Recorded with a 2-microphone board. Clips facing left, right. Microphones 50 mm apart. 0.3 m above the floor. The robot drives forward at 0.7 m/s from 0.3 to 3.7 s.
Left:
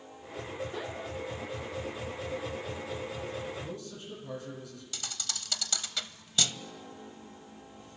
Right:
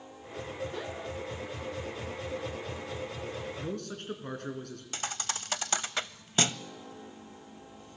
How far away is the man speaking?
About 4.5 m.